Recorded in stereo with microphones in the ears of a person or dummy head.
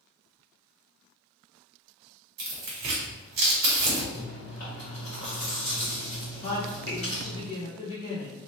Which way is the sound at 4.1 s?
60° left (ahead or behind).